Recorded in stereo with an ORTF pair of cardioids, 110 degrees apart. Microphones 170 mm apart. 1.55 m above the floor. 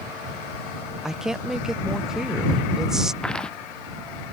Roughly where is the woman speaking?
Ahead.